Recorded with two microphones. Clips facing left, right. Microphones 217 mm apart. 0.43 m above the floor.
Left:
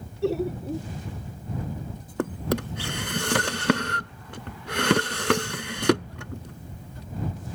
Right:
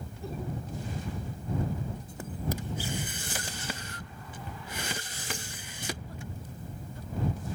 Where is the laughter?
85° left.